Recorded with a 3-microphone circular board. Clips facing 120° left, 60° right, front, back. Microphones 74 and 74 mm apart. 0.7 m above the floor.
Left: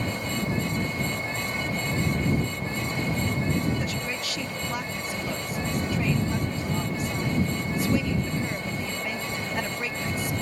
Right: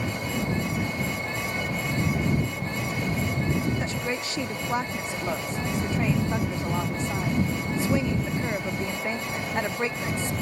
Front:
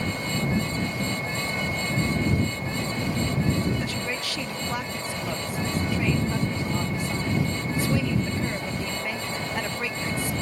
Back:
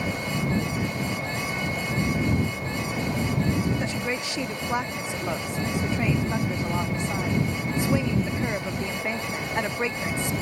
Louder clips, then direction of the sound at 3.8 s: Right 2 dB, back 2 dB; 115° right.